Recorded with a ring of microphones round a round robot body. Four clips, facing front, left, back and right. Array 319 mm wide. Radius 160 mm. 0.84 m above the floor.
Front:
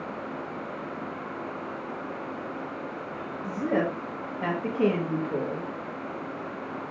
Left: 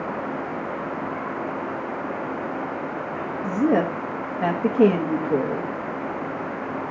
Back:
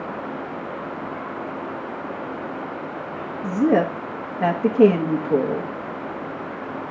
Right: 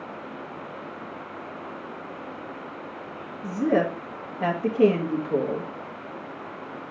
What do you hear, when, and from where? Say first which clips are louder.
3.4 s a woman speaking: left 2 dB, back 8 dB; 150° left, 1.3 m